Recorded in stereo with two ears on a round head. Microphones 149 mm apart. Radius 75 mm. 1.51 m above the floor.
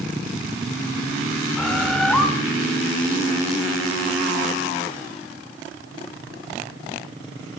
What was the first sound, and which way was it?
A bird, 5° left (ahead or behind).